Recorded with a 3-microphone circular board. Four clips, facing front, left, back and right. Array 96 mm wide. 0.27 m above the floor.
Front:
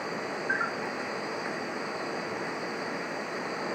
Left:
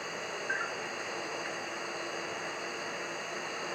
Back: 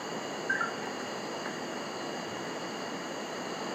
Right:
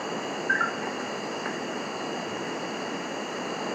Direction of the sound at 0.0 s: 85° right.